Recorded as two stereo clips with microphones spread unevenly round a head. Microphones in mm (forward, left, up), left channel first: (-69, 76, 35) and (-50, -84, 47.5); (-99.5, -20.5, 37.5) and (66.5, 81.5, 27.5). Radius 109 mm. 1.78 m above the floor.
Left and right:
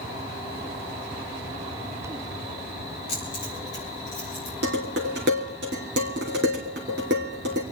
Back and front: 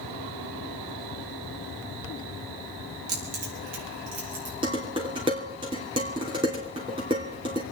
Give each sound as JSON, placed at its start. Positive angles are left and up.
{"t": 3.1, "sound": "keys jangling", "azimuth_deg": 30, "distance_m": 4.5}
{"t": 4.6, "sound": "dishes clattering", "azimuth_deg": -40, "distance_m": 3.0}